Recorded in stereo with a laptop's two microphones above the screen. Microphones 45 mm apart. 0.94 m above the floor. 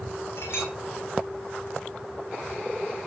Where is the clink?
60° left (ahead or behind), 5.5 m.